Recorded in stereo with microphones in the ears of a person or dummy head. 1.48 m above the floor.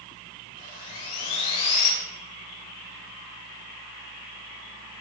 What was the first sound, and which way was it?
Sawing, 60° left (ahead or behind).